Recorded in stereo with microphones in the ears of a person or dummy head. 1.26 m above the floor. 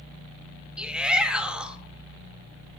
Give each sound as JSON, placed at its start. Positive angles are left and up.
{"t": 0.8, "sound": "a shout", "side_deg": -10, "distance_m": 2.0}